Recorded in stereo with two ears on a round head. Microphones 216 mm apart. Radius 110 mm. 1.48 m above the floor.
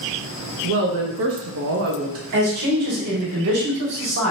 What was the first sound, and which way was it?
A woman speaking, 60° right (ahead or behind).